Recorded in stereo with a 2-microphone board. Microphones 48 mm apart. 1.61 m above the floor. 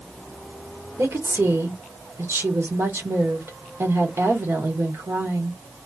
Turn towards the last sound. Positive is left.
turn(degrees=-80)